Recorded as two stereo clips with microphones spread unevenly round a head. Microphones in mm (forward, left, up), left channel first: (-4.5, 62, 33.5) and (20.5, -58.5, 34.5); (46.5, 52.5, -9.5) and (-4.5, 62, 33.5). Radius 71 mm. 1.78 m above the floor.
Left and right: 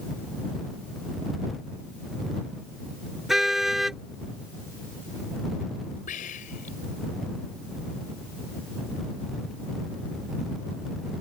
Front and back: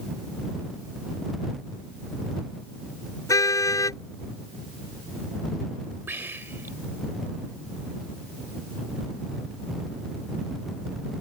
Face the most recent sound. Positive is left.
turn(degrees=135)